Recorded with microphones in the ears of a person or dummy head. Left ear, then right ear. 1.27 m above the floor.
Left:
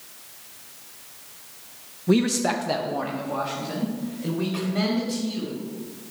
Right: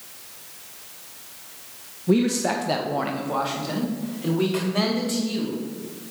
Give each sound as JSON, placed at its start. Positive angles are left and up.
{"t": 2.1, "sound": "a man speaking", "side_deg": 25, "distance_m": 0.6}